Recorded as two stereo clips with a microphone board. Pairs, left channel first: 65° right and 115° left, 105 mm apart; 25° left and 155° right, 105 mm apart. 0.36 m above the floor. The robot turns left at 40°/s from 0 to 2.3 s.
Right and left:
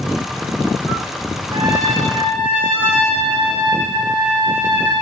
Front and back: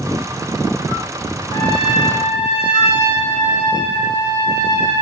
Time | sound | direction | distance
1.5 | a trumpet | 70° left | 9 m